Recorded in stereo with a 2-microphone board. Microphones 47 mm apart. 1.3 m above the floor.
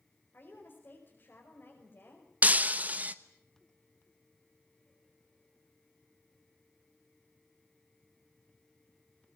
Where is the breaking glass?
35° right (ahead or behind), 0.8 m.